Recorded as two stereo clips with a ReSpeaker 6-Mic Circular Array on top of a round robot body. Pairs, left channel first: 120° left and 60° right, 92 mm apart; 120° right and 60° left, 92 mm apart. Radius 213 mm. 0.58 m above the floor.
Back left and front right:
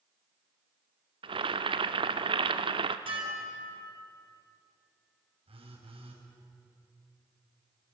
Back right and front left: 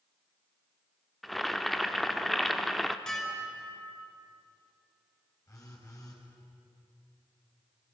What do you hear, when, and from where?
1.2 s boiling: 30° right, 0.7 m
3.1 s dishes clattering: 35° right, 4.5 m
5.5 s a phone buzzing: 65° right, 5 m